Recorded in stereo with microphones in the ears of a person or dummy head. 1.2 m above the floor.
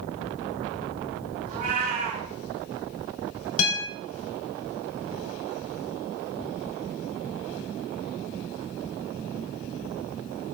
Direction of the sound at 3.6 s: 80° left.